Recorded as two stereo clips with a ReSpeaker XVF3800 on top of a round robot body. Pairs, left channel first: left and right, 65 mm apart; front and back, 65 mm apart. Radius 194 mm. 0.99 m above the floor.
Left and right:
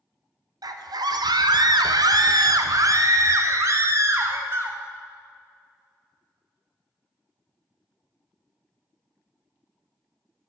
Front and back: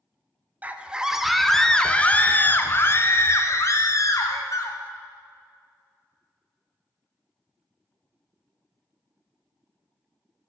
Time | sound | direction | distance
0.6 | a scream | 110° right | 1.0 m